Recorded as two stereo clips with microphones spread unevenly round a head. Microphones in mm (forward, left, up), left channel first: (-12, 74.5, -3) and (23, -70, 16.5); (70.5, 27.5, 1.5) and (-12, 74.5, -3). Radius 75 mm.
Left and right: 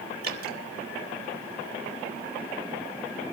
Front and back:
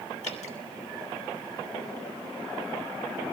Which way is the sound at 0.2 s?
50° right.